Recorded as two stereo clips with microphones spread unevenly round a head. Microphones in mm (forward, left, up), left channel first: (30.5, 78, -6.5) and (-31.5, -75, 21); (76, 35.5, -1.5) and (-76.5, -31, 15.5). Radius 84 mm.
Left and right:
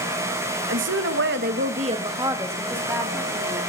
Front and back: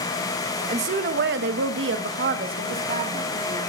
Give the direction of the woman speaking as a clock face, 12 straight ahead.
3 o'clock.